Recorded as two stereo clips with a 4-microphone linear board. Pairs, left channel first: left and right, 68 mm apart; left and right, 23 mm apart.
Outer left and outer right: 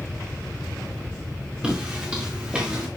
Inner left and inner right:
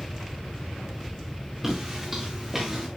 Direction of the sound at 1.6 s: 15° right (ahead or behind).